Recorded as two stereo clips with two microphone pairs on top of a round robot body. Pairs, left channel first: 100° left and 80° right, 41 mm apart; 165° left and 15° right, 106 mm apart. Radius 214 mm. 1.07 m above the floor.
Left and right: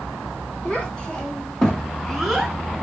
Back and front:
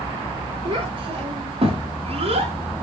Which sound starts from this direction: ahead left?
A child speaking, at 0.7 s.